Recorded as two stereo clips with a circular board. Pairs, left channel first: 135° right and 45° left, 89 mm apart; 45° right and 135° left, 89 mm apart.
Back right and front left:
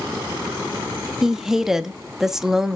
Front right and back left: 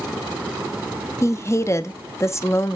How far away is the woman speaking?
About 0.6 m.